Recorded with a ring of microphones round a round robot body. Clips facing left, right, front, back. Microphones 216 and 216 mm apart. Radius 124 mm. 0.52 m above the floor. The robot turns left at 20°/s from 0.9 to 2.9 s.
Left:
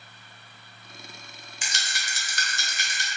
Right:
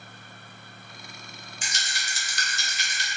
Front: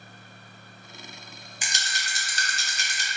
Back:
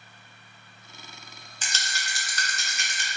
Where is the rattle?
75° left, 0.5 m; by 3.1 s 50° left, 0.5 m.